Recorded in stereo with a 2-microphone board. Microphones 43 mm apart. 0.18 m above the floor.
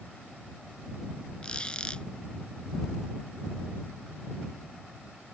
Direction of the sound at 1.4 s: 25° left (ahead or behind).